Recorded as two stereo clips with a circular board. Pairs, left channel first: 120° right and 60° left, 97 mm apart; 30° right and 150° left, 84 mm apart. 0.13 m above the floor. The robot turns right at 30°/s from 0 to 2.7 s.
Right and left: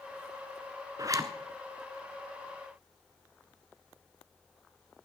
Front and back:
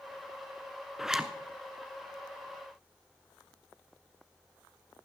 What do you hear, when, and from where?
1.0 s a zipper: 70° left, 0.9 m; by 1.3 s 80° left, 0.9 m